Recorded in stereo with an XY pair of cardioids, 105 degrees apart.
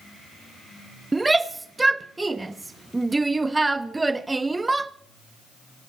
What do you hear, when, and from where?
1.1 s a shout: 15° right, 0.5 m